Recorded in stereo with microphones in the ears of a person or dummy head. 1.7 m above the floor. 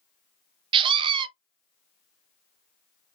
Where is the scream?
25° right (ahead or behind), 0.5 m.